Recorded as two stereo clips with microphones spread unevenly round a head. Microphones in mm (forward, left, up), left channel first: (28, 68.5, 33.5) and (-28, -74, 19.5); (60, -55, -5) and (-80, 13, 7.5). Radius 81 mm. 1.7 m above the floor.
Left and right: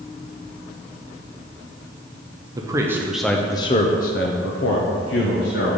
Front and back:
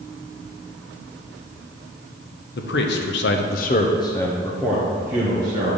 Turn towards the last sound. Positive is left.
turn(degrees=85)